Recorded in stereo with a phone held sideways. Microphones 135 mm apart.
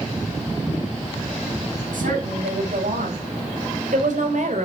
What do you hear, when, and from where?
1.9 s a woman speaking: 85° right, 6.5 m; by 4.7 s 65° right (ahead or behind), 3 m